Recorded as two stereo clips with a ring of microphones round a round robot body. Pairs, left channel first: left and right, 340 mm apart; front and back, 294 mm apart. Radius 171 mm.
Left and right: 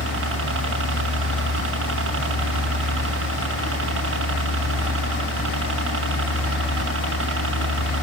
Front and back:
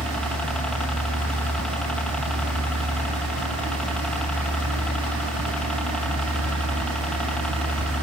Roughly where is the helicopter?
Right.